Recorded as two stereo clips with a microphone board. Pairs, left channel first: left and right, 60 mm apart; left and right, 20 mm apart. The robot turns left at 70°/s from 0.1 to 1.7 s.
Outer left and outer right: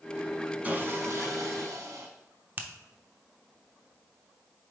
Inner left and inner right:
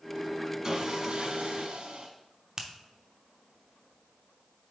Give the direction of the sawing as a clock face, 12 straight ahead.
1 o'clock.